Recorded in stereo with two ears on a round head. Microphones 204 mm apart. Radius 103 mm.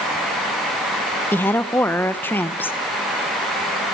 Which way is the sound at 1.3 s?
10° left (ahead or behind).